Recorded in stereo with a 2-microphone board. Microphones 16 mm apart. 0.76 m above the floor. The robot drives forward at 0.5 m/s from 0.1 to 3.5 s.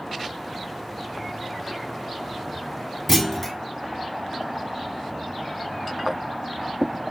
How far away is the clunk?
About 0.7 m.